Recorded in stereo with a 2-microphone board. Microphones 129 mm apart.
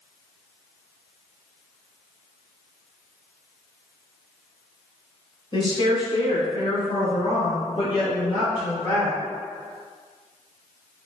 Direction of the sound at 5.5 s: 40° left (ahead or behind).